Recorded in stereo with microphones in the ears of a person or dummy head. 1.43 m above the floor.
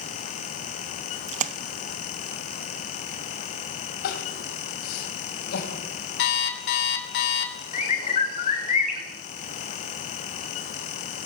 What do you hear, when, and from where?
1.3 s a splash: 35° right (ahead or behind), 0.9 m
4.0 s crying: 55° left (ahead or behind), 2.5 m
6.2 s an alarm clock: 65° left (ahead or behind), 2.5 m
7.7 s a bird: 45° left (ahead or behind), 4.5 m